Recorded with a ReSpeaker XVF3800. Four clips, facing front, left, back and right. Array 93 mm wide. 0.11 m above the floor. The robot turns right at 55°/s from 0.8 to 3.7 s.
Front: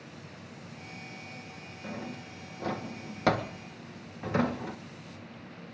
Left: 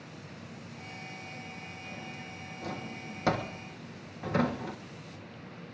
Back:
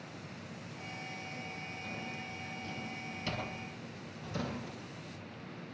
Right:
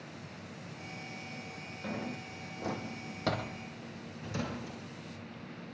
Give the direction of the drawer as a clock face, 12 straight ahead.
2 o'clock.